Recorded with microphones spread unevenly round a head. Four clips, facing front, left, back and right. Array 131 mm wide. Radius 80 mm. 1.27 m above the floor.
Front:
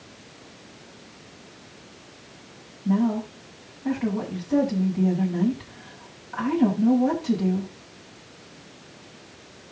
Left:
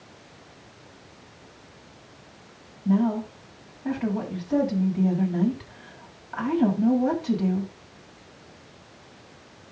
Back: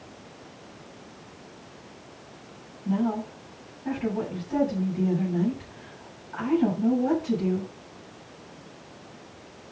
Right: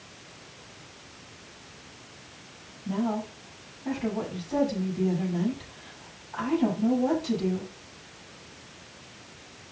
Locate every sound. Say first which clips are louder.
2.9 s a woman speaking: left 6 dB, front 3 dB; 55° left, 8 m